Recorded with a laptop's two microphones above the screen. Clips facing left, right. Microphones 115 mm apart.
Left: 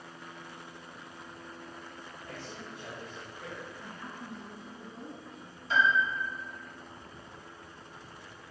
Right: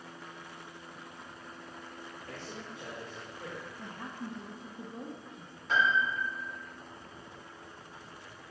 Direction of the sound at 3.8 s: 65° right (ahead or behind).